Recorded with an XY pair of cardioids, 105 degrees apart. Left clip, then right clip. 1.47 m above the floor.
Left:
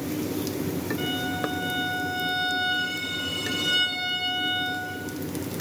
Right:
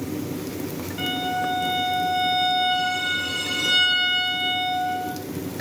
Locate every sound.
1.0 s a violin: 30° right, 8 m